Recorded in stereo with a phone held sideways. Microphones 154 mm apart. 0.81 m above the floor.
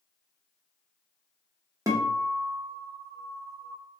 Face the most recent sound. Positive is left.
turn(degrees=-20)  # may be behind; listen again after turning